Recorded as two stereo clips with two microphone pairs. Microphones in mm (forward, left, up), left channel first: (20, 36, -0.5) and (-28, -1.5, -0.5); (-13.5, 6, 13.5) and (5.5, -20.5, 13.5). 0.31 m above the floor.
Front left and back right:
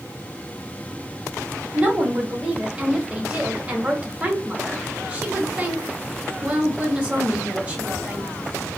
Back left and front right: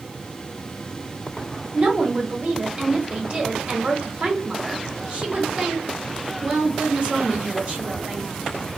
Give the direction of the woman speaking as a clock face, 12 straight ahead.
3 o'clock.